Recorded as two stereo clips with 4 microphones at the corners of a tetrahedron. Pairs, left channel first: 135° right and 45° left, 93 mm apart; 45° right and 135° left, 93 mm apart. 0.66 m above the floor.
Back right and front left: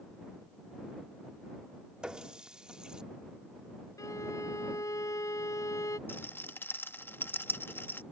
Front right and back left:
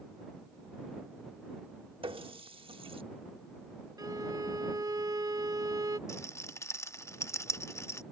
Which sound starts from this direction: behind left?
A running tap, at 2.0 s.